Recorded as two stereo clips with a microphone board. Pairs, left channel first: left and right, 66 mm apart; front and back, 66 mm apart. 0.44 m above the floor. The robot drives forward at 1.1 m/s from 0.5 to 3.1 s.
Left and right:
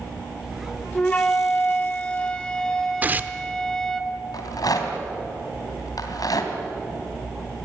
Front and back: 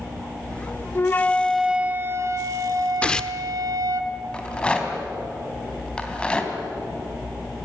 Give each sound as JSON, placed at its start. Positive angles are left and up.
{"t": 0.9, "sound": "a flute", "azimuth_deg": 25, "distance_m": 1.0}
{"t": 3.0, "sound": "tearing paper", "azimuth_deg": -50, "distance_m": 0.9}
{"t": 4.3, "sound": "a rattle", "azimuth_deg": 75, "distance_m": 3.0}